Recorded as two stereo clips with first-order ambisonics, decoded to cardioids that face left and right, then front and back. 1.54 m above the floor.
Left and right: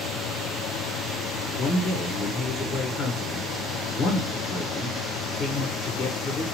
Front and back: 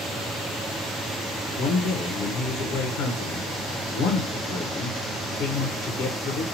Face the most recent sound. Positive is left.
turn(degrees=25)